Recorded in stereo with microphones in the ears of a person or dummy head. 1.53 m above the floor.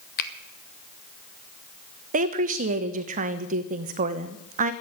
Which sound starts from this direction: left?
A finger snap, at 0.2 s.